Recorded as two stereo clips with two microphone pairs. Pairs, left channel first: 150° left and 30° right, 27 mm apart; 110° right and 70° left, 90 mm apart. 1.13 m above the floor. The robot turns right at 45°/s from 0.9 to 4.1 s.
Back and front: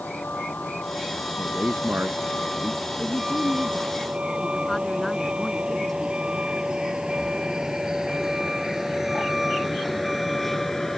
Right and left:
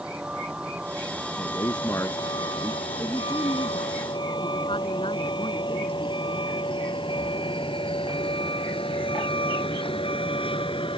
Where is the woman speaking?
175° right; by 6.2 s 125° right.